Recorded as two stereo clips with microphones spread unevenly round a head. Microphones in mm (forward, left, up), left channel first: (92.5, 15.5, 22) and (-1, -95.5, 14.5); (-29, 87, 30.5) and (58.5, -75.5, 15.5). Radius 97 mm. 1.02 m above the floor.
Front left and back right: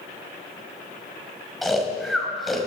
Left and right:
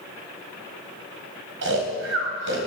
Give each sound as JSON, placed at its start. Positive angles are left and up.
{"t": 1.6, "sound": "snoring", "azimuth_deg": -40, "distance_m": 3.0}